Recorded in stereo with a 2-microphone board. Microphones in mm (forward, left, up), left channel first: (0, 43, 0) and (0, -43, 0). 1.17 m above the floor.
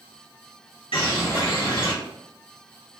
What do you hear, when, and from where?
0.9 s a bird: 80° left, 1.6 m